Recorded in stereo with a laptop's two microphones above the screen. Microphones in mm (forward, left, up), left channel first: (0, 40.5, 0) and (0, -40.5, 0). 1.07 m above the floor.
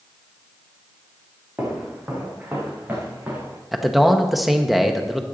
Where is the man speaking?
Centre (ahead or behind), 0.9 m.